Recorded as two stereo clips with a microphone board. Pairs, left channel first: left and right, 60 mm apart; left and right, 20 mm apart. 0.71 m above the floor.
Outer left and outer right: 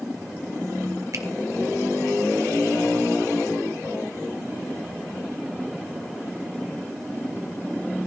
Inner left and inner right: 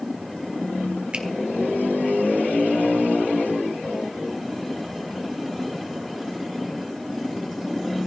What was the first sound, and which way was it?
A finger snap, 65° right (ahead or behind).